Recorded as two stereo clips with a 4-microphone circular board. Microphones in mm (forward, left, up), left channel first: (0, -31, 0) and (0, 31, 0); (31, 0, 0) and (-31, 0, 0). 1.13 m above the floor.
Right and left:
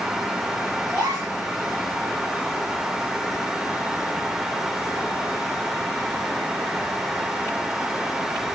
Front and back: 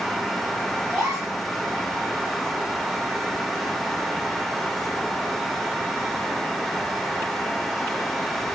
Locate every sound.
0.9 s a gasp: 140° left, 5 m